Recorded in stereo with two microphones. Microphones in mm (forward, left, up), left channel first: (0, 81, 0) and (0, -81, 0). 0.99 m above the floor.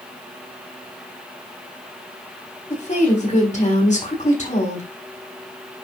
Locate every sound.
2.7 s a woman speaking: 50° left (ahead or behind), 4 m